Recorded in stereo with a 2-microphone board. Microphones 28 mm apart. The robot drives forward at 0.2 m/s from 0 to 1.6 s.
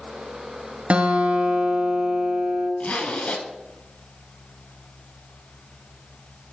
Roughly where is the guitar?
Right.